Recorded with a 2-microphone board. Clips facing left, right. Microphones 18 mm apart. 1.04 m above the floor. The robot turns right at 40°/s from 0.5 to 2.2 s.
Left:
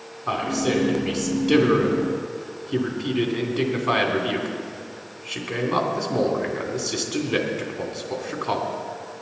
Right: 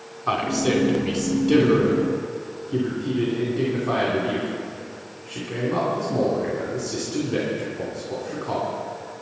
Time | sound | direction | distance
0.3 | a man speaking | 30° right (ahead or behind) | 2.5 m